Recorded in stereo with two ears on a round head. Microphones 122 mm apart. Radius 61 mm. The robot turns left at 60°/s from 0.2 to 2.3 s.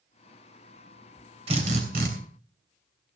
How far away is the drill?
About 3.5 m.